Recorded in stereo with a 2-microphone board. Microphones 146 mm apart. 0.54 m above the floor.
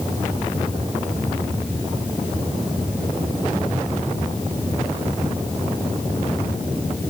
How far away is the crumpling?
No crumpling in this recording.